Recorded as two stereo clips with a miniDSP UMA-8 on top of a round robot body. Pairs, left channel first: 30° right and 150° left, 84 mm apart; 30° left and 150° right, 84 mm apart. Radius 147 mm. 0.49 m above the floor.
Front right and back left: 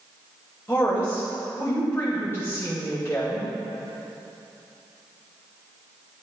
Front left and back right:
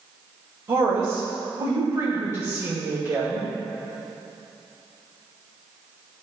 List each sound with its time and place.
0.7 s a woman speaking: 95° right, 2.5 m